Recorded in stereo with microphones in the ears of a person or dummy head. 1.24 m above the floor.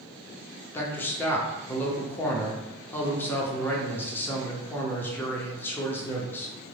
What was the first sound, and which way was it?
A man speaking, 10° left (ahead or behind).